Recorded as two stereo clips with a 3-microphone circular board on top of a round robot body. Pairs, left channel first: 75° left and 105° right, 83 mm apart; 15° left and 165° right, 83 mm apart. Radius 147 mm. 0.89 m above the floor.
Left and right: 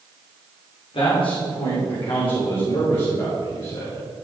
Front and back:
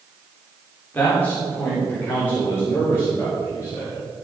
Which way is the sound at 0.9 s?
85° left.